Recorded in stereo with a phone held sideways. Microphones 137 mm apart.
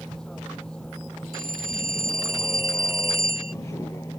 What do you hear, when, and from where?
0.0 s a vehicle: 5° left (ahead or behind); by 4.2 s 25° left (ahead or behind)
1.3 s a phone ringing: 85° right